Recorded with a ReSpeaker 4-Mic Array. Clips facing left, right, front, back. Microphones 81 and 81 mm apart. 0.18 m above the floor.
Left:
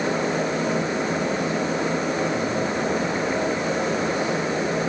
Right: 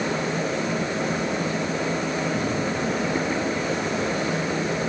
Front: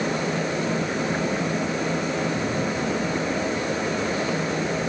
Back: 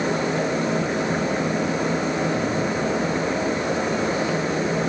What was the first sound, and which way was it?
Only background noise.